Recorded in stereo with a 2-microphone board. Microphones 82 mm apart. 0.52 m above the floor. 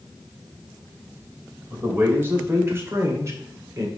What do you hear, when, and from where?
1.7 s a man speaking: 25° right (ahead or behind), 2.5 m; by 3.9 s 40° right (ahead or behind), 1.5 m